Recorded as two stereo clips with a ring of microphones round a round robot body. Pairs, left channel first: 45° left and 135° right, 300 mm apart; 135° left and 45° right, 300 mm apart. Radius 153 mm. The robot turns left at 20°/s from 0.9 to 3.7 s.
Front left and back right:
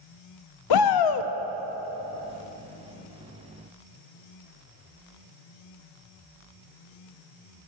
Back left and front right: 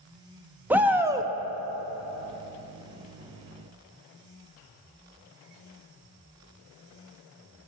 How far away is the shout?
About 1.0 m.